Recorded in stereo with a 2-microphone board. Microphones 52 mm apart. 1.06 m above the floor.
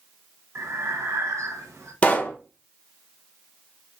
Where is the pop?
30° left (ahead or behind), 0.9 m.